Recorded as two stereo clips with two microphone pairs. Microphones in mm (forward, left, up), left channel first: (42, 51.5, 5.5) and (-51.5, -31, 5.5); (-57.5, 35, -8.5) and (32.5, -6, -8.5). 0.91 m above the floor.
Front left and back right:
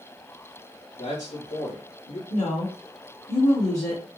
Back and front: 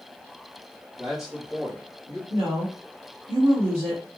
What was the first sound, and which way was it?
A man speaking, 60° left.